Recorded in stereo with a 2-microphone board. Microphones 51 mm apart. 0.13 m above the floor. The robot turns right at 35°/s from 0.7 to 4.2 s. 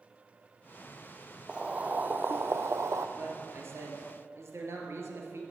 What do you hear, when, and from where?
1.5 s boiling: 165° right, 0.9 m; by 3.1 s 110° right, 0.9 m
3.2 s a man speaking: 125° right, 3 m; by 5.4 s 90° right, 3 m